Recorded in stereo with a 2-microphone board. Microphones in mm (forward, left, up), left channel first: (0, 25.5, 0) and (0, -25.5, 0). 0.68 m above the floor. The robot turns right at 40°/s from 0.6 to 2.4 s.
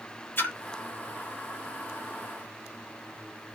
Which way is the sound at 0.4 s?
45° left (ahead or behind).